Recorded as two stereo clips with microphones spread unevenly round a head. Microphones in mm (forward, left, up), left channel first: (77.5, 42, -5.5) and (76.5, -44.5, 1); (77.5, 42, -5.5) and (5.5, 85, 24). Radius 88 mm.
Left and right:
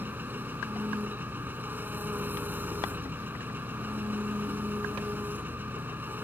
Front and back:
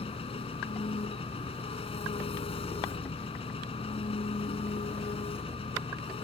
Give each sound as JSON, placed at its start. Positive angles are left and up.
{"t": 0.0, "sound": "an engine running", "azimuth_deg": -25}